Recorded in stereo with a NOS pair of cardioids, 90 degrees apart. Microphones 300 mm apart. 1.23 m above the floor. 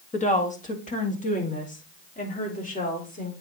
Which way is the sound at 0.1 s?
25° left.